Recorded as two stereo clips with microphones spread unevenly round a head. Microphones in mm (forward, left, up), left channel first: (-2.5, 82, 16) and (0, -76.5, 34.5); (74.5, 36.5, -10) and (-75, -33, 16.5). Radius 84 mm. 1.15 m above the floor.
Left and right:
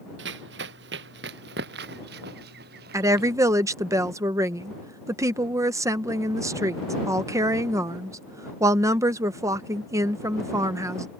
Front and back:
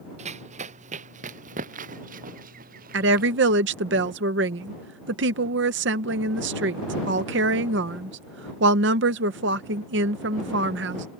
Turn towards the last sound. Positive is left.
turn(degrees=-165)